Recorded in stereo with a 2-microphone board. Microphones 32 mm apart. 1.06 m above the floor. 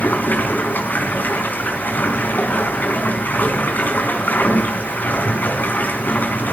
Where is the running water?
70° left (ahead or behind), 4.5 m.